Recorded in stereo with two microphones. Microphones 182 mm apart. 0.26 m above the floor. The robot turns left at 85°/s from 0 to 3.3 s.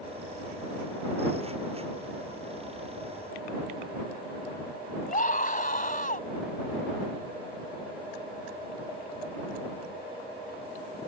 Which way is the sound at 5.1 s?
50° left (ahead or behind).